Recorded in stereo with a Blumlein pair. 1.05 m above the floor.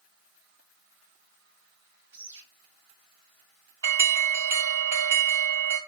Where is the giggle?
No giggle in this recording.